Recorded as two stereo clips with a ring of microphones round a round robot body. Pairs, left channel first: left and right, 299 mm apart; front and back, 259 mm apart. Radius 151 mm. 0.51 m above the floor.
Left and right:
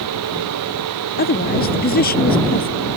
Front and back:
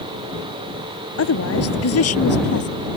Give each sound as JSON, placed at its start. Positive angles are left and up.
{"t": 1.2, "sound": "a woman speaking", "azimuth_deg": 30}